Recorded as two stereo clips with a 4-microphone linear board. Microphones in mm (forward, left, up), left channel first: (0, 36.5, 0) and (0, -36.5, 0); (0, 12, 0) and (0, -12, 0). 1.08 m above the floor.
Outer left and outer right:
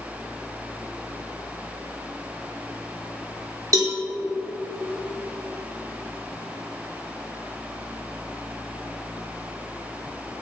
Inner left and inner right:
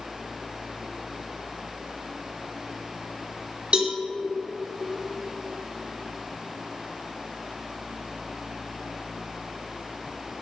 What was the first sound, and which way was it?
A cowbell, 50° right (ahead or behind).